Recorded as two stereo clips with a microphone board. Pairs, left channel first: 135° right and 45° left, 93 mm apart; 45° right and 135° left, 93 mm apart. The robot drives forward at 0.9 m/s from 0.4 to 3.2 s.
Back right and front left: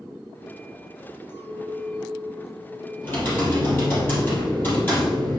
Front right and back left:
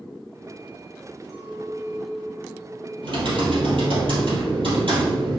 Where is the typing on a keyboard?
155° left, 3 m.